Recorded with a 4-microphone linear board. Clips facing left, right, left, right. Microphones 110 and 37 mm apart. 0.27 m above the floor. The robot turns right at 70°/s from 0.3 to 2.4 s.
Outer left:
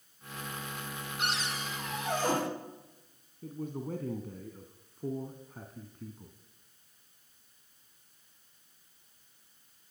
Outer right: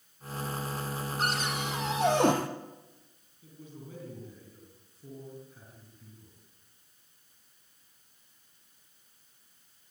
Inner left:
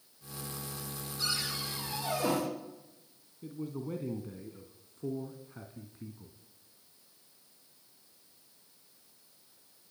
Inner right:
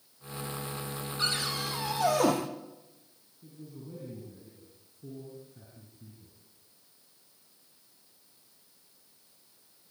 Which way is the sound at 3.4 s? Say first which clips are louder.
Outer left 10 dB, inner left 8 dB; 55° left (ahead or behind).